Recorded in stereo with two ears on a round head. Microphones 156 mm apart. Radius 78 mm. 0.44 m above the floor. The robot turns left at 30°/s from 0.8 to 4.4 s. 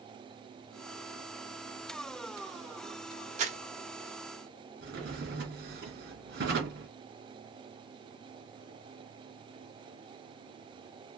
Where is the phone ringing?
No phone ringing in this recording.